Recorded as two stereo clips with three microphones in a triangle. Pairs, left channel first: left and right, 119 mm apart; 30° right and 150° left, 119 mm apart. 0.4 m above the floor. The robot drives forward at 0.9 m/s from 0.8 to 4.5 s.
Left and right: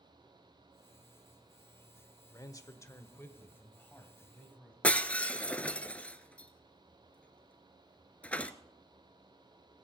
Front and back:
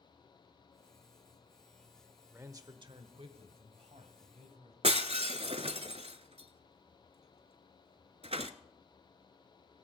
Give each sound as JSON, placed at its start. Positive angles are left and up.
{"t": 2.3, "sound": "a man speaking", "azimuth_deg": 95, "distance_m": 0.9}
{"t": 4.8, "sound": "breaking glass", "azimuth_deg": 165, "distance_m": 0.6}